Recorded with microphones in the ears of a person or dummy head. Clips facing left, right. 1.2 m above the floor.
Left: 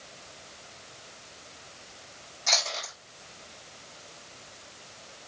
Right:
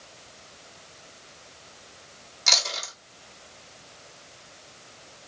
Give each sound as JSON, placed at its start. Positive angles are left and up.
{"t": 2.5, "sound": "chewing", "side_deg": -70, "distance_m": 1.6}